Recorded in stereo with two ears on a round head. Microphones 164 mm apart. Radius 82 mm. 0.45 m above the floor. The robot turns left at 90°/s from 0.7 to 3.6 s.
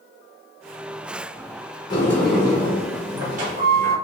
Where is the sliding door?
35° left, 1.1 m; by 4.0 s 120° right, 1.1 m.